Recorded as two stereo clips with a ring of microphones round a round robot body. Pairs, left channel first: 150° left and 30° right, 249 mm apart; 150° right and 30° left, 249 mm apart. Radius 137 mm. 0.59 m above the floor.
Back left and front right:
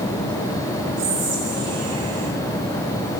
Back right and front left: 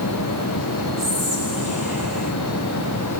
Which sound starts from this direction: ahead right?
Whispering, at 1.0 s.